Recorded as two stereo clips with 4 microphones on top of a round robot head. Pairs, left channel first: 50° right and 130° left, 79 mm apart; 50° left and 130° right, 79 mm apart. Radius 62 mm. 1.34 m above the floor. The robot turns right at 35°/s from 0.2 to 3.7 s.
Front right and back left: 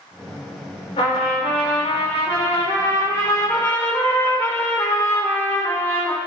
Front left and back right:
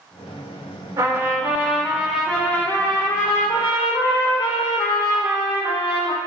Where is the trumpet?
75° right, 1.9 m; by 6.2 s 20° left, 1.9 m.